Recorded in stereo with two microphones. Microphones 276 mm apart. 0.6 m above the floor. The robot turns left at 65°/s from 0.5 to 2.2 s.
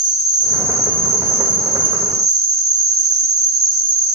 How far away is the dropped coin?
I don't hear a dropped coin.